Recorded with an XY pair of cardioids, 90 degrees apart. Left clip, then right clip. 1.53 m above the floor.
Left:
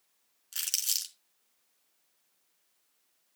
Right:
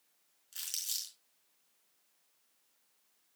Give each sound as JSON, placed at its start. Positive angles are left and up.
{"t": 0.5, "sound": "crumpling", "azimuth_deg": 65, "distance_m": 5.0}